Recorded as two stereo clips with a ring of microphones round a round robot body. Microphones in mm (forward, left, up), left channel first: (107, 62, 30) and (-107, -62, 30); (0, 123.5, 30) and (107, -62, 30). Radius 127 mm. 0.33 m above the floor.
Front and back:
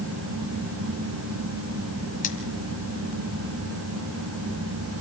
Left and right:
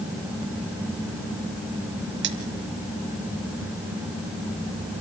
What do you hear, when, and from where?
2.2 s cutlery clinking: 30° right, 2.5 m